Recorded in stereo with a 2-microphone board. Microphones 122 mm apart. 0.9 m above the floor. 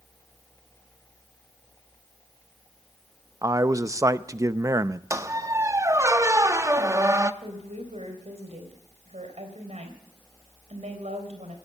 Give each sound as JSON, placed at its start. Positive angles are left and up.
{"t": 3.4, "sound": "a man speaking", "side_deg": -25, "distance_m": 0.5}
{"t": 5.1, "sound": "a squeak", "side_deg": -25, "distance_m": 0.6}
{"t": 7.4, "sound": "a woman speaking", "side_deg": -65, "distance_m": 3.5}